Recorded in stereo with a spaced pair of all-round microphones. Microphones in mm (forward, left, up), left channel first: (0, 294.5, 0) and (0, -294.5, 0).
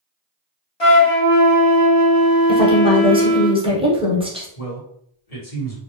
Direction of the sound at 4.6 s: 80° left.